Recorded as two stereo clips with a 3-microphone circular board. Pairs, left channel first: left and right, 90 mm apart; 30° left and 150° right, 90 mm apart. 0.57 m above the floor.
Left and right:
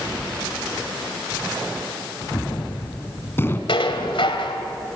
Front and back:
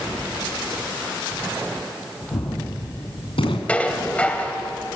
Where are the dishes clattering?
105° left, 2.0 m.